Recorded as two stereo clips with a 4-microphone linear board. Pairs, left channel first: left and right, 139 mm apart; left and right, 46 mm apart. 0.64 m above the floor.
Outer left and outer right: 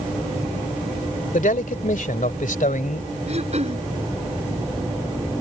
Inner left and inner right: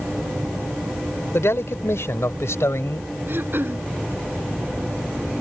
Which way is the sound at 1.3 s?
70° left (ahead or behind).